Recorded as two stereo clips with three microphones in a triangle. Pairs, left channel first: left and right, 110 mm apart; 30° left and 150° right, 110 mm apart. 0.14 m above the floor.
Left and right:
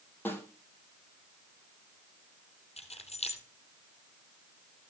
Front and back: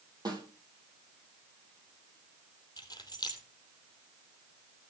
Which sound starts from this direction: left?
Keys jangling, at 2.8 s.